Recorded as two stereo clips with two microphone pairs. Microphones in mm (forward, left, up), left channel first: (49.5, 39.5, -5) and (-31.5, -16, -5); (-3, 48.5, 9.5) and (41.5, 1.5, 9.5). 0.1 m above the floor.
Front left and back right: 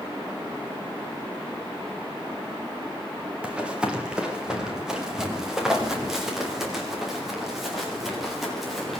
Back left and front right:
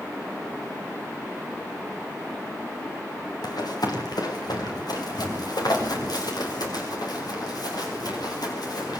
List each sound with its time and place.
3.4 s running footsteps: 135° left, 5 m; by 9.0 s 125° left, 9.5 m